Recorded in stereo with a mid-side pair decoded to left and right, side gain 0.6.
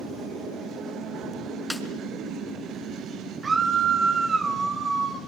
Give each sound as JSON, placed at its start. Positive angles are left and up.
{"t": 1.7, "sound": "a snare drum", "azimuth_deg": 5, "distance_m": 5.0}
{"t": 3.4, "sound": "a scream", "azimuth_deg": -25, "distance_m": 5.0}